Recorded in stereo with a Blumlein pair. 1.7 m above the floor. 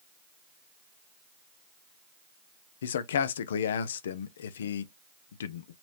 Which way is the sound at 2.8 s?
60° left.